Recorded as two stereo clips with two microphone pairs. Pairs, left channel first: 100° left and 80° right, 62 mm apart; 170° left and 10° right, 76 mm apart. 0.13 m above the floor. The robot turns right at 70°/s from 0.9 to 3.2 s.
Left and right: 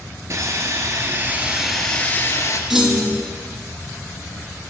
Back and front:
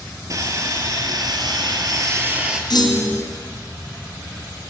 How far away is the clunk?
About 1.5 m.